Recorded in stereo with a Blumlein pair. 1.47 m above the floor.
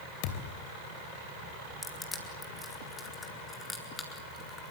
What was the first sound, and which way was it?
A thud, 45° left.